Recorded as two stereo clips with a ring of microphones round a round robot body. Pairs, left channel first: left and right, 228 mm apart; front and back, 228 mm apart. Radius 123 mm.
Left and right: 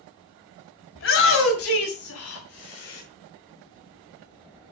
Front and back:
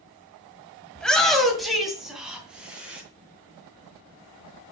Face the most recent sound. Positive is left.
turn(degrees=95)